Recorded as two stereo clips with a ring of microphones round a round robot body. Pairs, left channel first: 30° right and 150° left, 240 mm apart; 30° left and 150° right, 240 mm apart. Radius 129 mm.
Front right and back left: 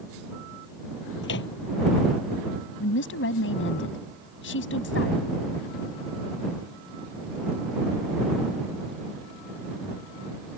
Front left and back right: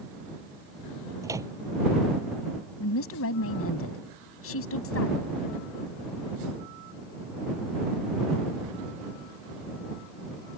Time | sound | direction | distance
1.2 | a microwave | 75° right | ?
2.8 | a woman speaking | 5° left | ?